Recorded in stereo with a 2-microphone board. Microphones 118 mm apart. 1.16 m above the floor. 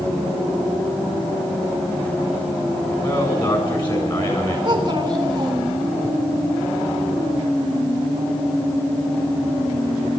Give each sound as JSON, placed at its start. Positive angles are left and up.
{"t": 3.0, "sound": "a man speaking", "side_deg": 40, "distance_m": 7.0}
{"t": 4.7, "sound": "a child speaking", "side_deg": -35, "distance_m": 2.5}